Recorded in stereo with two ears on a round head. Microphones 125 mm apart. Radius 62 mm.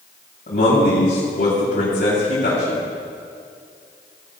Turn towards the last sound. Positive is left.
turn(degrees=70)  # may be behind; listen again after turning